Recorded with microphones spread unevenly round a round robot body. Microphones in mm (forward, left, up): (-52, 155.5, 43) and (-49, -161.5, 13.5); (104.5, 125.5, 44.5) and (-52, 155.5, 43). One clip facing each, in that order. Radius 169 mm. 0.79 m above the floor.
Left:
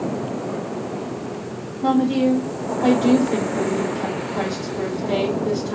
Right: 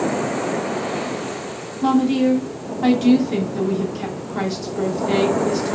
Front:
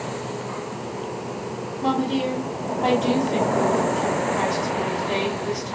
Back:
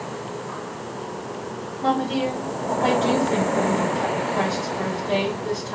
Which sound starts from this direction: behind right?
A woman speaking, at 1.8 s.